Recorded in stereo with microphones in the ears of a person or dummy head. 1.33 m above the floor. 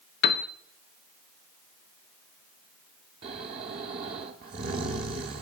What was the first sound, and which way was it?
A piano, 45° left (ahead or behind).